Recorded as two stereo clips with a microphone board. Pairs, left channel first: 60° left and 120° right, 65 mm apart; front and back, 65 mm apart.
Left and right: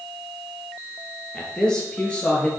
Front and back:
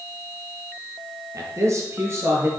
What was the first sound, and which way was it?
A man speaking, 140° left.